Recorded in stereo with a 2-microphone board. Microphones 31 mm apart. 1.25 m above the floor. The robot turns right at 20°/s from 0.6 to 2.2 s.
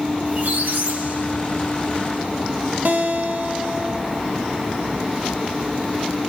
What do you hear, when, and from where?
0.2 s a squeak: 75° right (ahead or behind), 1.2 m; by 1.9 s 65° right (ahead or behind), 1.2 m
2.9 s a guitar: 65° right (ahead or behind), 0.9 m